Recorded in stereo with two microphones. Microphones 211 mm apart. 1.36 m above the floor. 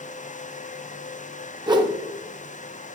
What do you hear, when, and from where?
1.7 s a whoosh: 20° right (ahead or behind), 0.7 m